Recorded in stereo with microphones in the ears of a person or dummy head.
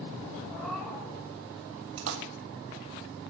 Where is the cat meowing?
5° left (ahead or behind), 2 m.